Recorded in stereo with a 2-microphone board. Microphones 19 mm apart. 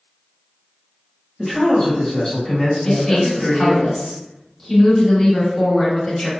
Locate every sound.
1.4 s a man speaking: 20° left (ahead or behind), 1.9 m; by 3.8 s 10° right (ahead or behind), 1.8 m
2.9 s a woman speaking: 20° left (ahead or behind), 1.1 m